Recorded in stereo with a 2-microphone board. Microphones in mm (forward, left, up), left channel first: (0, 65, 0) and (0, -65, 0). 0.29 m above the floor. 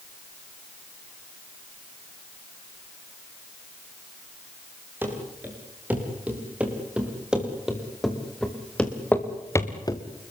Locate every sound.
5.0 s running footsteps: 15° right (ahead or behind), 9 m; by 10.0 s 30° left (ahead or behind), 2.5 m